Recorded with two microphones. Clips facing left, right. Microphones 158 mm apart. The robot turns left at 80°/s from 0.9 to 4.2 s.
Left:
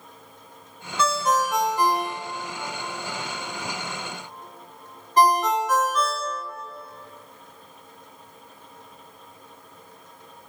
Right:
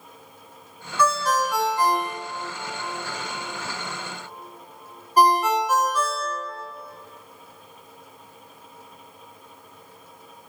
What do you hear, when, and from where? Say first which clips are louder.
1.0 s a ringtone: even; 25° left (ahead or behind), 0.7 m; by 6.7 s 10° right (ahead or behind), 0.7 m